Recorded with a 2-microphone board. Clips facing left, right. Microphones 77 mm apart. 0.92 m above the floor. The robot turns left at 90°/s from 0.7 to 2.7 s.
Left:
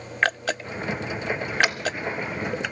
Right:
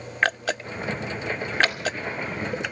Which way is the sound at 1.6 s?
15° left (ahead or behind).